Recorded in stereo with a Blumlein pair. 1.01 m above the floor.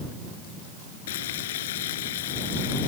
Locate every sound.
1.1 s frying: 55° left